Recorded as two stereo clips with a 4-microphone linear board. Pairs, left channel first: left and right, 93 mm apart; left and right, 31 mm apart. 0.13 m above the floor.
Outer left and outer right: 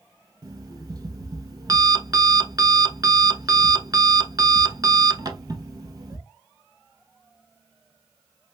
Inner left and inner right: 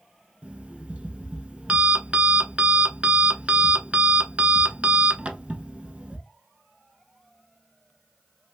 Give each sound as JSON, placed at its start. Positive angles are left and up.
{"t": 0.4, "sound": "an alarm clock", "side_deg": -45, "distance_m": 0.6}